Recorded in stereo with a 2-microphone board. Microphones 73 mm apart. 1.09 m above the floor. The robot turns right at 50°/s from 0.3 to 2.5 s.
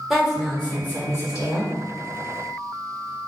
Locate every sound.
0.1 s a woman speaking: 5° right, 1.2 m; by 1.7 s 65° left, 1.2 m